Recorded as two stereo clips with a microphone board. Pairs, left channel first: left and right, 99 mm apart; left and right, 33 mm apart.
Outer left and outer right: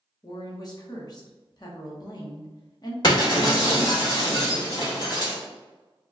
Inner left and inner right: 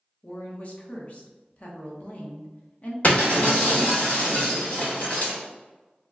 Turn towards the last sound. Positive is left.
turn(degrees=50)  # may be behind; listen again after turning